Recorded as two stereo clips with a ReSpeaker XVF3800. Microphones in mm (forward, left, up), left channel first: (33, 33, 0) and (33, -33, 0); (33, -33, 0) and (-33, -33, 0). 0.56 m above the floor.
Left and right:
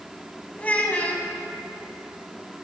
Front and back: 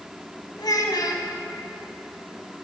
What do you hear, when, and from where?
0.6 s a child speaking: 20° left, 2 m